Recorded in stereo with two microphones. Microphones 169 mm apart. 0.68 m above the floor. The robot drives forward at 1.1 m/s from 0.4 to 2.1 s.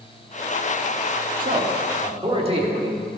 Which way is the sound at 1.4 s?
55° right (ahead or behind).